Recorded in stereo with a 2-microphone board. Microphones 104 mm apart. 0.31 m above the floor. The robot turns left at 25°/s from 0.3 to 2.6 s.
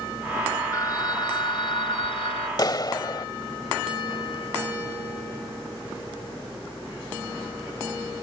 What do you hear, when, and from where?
0.7 s a phone ringing: 145° left; by 2.5 s 100° left
2.6 s a clap: 45° left (ahead or behind)